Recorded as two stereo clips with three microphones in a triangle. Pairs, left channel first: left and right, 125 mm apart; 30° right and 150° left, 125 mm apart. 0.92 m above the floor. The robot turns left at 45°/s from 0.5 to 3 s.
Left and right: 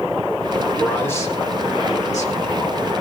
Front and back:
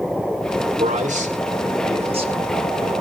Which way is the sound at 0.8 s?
175° left.